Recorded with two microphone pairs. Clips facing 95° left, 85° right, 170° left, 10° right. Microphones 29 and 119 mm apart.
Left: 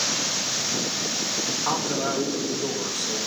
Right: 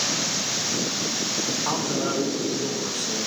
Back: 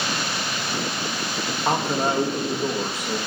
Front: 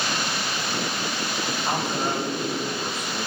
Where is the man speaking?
Straight behind, 1.8 m.